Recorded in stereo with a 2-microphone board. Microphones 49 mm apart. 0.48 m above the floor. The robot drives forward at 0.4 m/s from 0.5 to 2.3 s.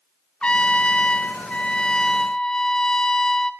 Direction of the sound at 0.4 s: 25° left (ahead or behind).